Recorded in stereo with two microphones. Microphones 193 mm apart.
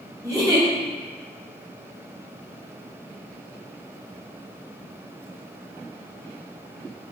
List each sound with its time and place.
0.2 s a giggle: 20° right (ahead or behind), 1.3 m